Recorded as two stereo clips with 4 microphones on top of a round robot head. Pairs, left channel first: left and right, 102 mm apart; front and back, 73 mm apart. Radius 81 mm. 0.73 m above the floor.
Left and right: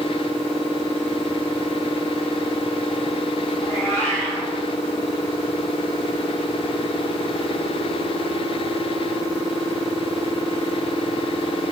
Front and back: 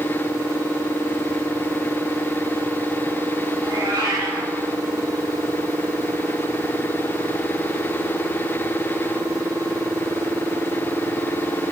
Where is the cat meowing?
155° left, 2.5 m.